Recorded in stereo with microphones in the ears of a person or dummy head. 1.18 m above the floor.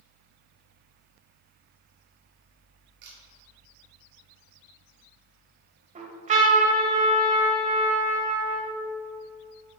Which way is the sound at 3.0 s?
60° right (ahead or behind).